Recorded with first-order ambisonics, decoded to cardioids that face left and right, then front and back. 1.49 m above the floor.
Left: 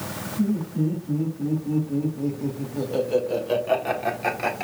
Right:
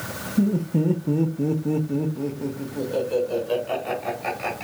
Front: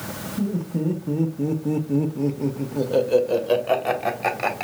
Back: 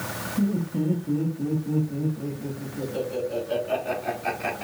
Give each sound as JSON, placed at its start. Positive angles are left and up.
{"t": 0.4, "sound": "laughter", "azimuth_deg": -90, "distance_m": 0.9}